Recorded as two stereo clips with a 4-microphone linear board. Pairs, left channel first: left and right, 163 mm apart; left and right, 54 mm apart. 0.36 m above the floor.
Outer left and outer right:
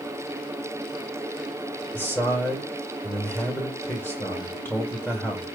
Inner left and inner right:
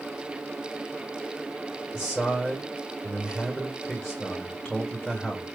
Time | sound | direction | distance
1.9 | a man speaking | 10° left (ahead or behind) | 1.2 m